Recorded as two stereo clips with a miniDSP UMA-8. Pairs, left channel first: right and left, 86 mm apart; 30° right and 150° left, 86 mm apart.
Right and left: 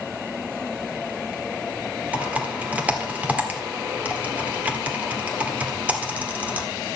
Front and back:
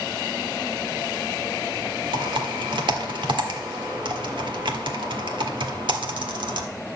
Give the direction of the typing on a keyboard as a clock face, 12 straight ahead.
7 o'clock.